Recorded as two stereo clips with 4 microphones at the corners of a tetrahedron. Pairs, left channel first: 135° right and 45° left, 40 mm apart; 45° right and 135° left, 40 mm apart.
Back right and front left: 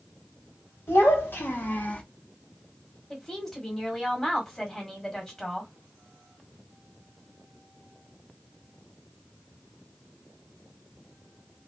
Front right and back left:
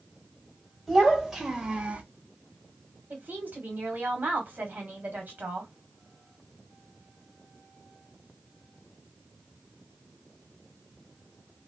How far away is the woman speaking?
About 1.4 m.